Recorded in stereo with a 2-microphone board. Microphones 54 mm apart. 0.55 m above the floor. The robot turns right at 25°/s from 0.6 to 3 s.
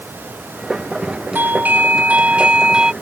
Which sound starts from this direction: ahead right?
A doorbell, at 1.4 s.